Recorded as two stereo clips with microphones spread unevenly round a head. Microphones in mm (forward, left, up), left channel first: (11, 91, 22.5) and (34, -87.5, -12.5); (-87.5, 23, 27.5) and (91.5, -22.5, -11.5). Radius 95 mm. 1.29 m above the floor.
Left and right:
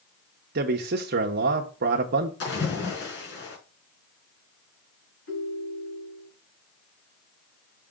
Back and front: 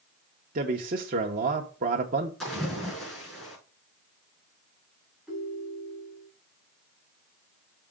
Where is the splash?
80° left, 5 m.